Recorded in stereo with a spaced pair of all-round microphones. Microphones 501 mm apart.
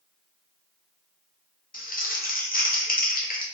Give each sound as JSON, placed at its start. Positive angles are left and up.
{"t": 1.7, "sound": "crumpling", "side_deg": 20, "distance_m": 0.5}